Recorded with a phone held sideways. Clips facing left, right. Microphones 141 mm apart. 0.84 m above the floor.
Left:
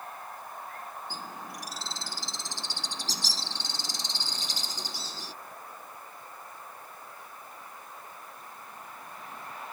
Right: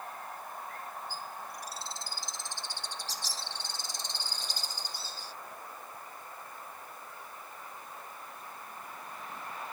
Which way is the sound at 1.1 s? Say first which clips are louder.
Left 1 dB; 85° left.